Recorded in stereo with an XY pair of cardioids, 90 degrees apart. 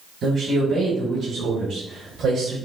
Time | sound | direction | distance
0.2 | a man speaking | 65° right | 2.5 m